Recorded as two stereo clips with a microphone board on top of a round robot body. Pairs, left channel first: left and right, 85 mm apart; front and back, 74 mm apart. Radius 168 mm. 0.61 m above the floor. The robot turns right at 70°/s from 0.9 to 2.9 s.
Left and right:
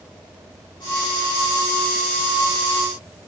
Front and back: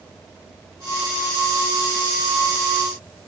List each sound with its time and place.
Only background noise.